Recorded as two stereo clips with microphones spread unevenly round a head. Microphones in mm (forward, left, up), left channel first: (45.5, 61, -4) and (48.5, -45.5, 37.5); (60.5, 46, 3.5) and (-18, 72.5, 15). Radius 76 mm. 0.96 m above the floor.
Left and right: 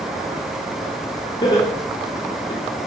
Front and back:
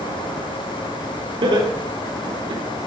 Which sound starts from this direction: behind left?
Laughter, at 1.4 s.